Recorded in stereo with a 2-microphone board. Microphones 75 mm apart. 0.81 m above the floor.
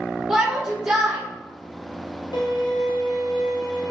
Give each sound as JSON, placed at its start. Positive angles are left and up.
{"t": 0.3, "sound": "a shout", "side_deg": -10, "distance_m": 0.9}
{"t": 2.3, "sound": "a violin", "side_deg": 80, "distance_m": 0.7}